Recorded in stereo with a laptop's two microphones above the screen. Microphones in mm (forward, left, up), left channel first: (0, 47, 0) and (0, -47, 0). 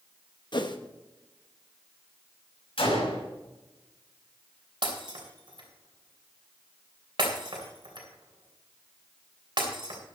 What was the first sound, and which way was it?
A whoosh, 55° left (ahead or behind).